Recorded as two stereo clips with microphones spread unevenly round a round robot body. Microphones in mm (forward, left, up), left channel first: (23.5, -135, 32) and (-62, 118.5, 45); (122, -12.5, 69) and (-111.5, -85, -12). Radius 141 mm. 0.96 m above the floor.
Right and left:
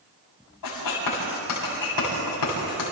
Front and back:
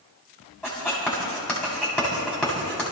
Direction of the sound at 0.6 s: 70° right.